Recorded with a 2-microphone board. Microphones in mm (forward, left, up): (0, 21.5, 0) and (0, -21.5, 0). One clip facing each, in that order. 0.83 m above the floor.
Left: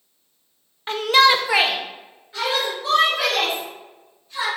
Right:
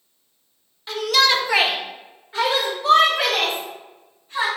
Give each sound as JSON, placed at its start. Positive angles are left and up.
{"t": 0.9, "sound": "a shout", "side_deg": 40, "distance_m": 0.6}